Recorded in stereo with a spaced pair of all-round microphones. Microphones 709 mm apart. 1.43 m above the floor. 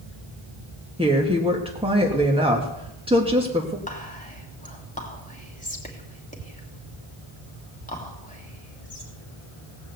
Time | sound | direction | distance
1.0 | a woman speaking | 10° right (ahead or behind) | 1.6 m
3.9 | whispering | 10° left (ahead or behind) | 3 m